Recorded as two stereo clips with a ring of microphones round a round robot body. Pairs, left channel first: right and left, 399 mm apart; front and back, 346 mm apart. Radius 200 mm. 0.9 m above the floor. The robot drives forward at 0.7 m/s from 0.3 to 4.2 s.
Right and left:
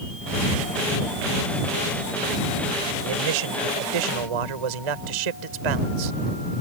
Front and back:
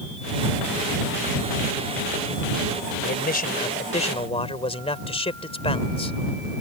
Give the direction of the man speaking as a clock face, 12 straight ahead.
10 o'clock.